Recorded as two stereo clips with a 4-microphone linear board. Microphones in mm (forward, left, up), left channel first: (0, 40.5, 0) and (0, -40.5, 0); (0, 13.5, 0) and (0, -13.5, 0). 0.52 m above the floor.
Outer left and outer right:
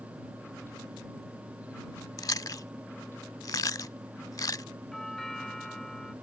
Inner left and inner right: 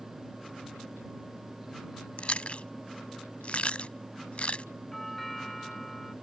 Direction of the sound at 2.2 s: 50° left (ahead or behind).